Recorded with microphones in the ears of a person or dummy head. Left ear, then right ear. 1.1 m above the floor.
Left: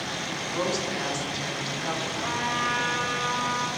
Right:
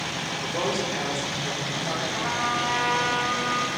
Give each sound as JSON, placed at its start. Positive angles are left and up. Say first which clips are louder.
{"t": 0.4, "sound": "a woman speaking", "louder": "right 1 dB", "side_deg": 25, "distance_m": 1.6}
{"t": 2.1, "sound": "a trumpet", "louder": "right 3 dB", "side_deg": 0, "distance_m": 0.6}